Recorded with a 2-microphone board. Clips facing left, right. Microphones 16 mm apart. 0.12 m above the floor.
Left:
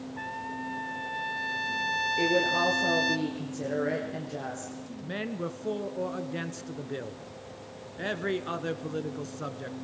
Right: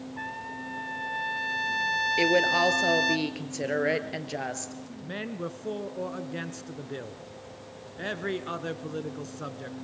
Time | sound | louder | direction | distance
0.2 | a trumpet | left 1 dB | 5° right (ahead or behind) | 0.6 m
2.2 | a woman speaking | right 3 dB | 50° right (ahead or behind) | 2.5 m
5.0 | a man speaking | left 1 dB | centre (ahead or behind) | 1.2 m